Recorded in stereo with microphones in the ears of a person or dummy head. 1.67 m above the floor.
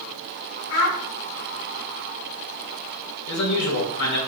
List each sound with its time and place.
0.7 s a child speaking: 65° left (ahead or behind), 2 m
3.3 s a man speaking: 75° left (ahead or behind), 1.8 m